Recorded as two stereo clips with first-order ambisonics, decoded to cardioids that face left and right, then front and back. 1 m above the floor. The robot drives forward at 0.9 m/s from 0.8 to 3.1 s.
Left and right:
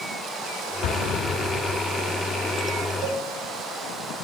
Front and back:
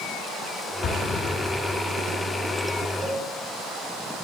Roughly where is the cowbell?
Behind right.